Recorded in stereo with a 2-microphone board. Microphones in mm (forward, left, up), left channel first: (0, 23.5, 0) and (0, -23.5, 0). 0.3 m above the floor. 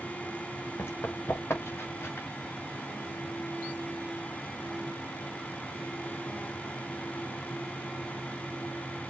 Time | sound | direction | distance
0.8 | running footsteps | 60° left (ahead or behind) | 3 m